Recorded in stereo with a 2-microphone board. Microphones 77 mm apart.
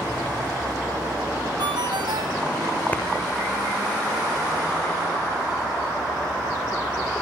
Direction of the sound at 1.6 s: 75° right (ahead or behind).